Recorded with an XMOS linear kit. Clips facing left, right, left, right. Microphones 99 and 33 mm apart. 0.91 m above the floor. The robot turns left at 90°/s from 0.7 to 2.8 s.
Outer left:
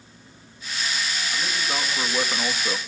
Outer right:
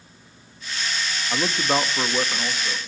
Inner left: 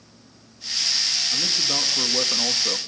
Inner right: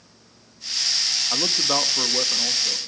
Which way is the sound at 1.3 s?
95° right.